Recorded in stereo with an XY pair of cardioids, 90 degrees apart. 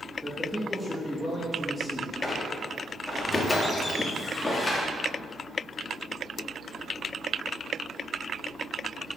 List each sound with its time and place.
0.2 s a man speaking: 5° right, 1.7 m
2.2 s a squeak: 25° left, 1.6 m